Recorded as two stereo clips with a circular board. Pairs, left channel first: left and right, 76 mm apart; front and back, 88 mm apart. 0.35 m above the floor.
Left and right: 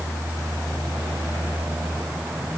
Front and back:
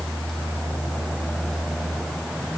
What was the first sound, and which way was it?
Only background noise.